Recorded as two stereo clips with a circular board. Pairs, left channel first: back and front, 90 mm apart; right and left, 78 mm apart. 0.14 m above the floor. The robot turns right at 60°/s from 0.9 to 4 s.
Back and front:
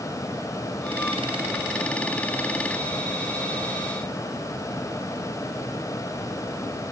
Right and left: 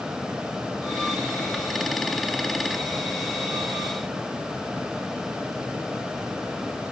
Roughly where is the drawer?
No drawer in this recording.